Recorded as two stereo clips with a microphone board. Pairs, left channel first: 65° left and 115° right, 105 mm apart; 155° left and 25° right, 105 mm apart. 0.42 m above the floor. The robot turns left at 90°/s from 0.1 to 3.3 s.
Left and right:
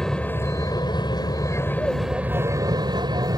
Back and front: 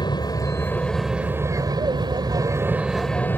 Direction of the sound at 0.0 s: 150° left.